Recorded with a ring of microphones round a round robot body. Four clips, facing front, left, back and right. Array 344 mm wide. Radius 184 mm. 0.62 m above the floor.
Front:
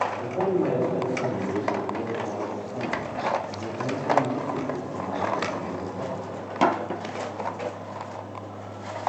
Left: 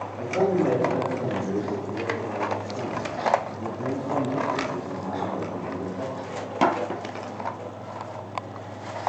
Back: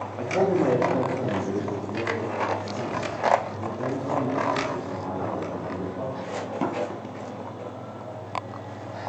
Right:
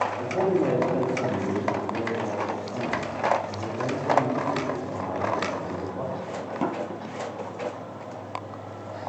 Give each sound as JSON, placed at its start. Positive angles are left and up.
{"t": 0.2, "sound": "a man speaking", "azimuth_deg": 175, "distance_m": 1.3}